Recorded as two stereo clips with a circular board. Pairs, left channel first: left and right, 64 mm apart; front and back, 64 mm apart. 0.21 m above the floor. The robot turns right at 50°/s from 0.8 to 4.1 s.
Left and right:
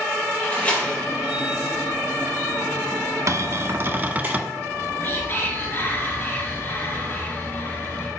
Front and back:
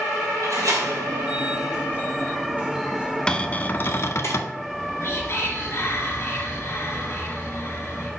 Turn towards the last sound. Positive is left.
turn(degrees=40)